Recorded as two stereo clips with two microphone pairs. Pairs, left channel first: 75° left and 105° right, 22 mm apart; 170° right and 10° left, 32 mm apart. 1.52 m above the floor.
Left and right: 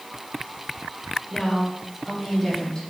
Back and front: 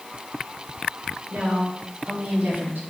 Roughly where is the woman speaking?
Ahead.